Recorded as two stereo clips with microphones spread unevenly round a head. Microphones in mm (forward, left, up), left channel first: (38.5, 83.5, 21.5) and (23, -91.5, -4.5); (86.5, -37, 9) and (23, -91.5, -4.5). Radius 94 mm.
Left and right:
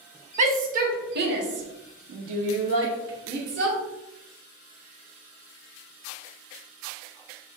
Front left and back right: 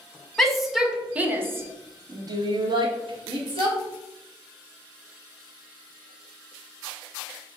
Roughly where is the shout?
Ahead right.